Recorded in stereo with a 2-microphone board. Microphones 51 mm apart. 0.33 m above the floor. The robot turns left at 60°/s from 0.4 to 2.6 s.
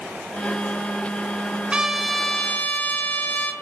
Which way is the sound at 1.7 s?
160° right.